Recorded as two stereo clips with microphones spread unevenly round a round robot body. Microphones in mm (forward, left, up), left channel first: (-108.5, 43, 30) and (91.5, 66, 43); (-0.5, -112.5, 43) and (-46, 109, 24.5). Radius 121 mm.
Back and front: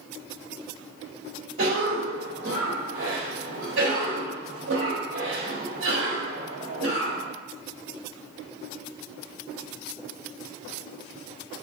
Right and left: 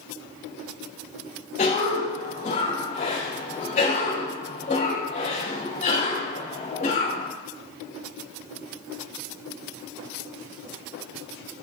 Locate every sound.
1.6 s a cough: 20° right, 3 m